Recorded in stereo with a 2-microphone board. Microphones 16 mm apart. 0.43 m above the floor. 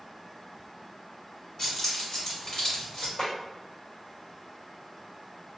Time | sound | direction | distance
1.6 | keys jangling | 25° left (ahead or behind) | 1.7 m
3.2 | a snare drum | 25° left (ahead or behind) | 1.9 m